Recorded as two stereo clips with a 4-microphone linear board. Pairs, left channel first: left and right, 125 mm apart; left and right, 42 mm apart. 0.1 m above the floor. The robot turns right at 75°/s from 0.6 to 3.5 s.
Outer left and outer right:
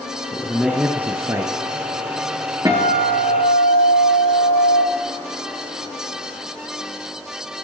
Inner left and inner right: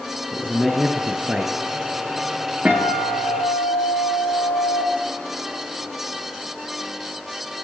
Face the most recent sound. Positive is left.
turn(degrees=30)